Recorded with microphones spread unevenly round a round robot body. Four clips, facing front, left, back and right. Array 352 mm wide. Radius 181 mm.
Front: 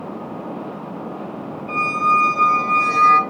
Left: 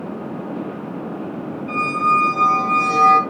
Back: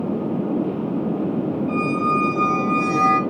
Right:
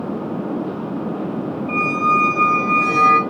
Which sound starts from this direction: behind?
A squeak, at 1.7 s.